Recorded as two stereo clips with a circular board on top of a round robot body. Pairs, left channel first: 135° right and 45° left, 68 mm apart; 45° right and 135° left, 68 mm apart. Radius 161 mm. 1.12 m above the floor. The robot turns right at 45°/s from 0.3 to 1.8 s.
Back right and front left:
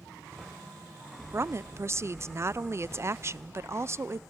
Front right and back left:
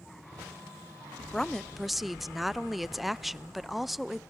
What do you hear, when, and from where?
1.3 s a woman speaking: 25° left, 0.6 m; by 4.2 s 50° left, 0.6 m